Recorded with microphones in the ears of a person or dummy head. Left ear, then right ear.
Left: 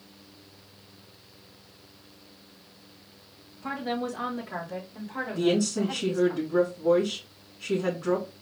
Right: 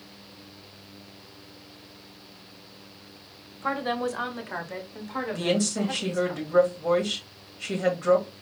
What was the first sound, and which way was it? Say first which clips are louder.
A woman speaking: right 4 dB; 45° right (ahead or behind).